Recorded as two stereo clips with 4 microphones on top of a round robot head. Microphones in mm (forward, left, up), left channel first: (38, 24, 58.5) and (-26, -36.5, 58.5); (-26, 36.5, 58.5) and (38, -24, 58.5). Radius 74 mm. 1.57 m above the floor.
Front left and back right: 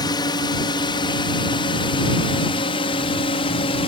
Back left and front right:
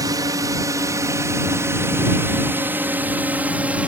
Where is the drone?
5° left; by 3.9 s 35° left.